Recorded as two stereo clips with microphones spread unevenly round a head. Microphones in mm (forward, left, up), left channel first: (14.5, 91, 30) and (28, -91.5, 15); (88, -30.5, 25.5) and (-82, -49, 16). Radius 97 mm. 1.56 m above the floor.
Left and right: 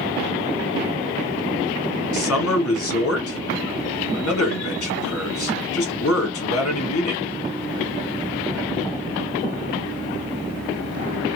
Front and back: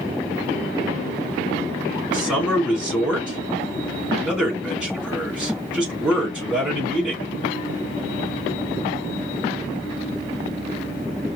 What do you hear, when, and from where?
2.1 s a man speaking: 100° left, 2.5 m